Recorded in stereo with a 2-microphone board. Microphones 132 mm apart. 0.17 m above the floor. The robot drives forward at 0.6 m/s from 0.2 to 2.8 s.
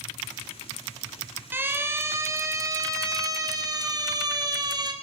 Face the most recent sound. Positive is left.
turn(degrees=-30)  # may be behind; listen again after turning